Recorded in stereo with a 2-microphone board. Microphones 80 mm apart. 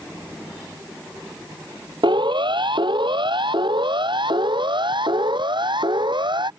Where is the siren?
75° right (ahead or behind); by 6.5 s 70° right (ahead or behind).